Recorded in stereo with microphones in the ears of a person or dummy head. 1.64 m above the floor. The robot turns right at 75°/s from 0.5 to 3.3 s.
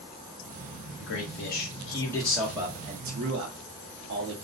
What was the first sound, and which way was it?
A man speaking, 80° left.